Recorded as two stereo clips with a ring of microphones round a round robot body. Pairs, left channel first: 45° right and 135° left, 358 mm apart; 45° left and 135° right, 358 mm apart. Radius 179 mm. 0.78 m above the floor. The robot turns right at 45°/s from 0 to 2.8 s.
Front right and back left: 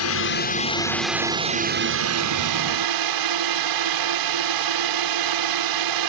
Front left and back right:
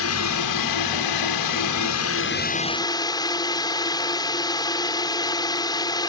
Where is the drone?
5° right; by 6.1 s 125° left.